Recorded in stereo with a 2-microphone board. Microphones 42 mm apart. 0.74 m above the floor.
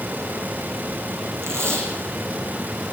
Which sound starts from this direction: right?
Tape being pulled, at 1.4 s.